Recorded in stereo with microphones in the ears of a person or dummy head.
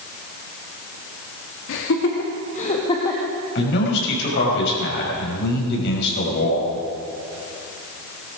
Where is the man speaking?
65° left (ahead or behind), 5.5 m.